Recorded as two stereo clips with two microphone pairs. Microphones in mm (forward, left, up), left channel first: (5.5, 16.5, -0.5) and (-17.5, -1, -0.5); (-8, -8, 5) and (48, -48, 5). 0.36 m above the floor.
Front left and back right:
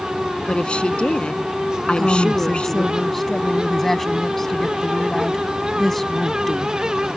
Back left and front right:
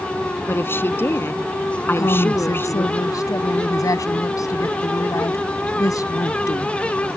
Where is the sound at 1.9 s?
115° left.